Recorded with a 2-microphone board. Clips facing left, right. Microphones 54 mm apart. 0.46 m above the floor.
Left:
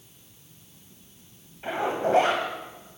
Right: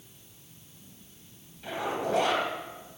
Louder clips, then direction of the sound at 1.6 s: Left 5 dB; 40° left (ahead or behind).